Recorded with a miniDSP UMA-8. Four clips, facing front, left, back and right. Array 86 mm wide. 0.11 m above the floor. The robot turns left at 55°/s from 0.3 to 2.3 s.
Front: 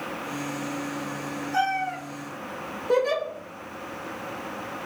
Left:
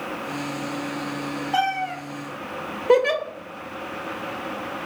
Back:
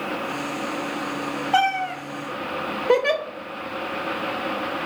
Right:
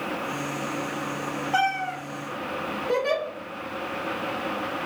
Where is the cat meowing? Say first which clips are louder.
Left 1 dB, back 4 dB; 175° left, 1.0 m; by 2.0 s 150° left, 1.0 m.